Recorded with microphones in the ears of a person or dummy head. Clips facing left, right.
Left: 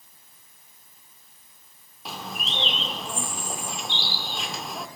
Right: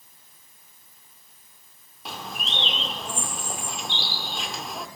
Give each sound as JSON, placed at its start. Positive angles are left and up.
{"t": 2.0, "sound": "a bird", "side_deg": 0, "distance_m": 1.5}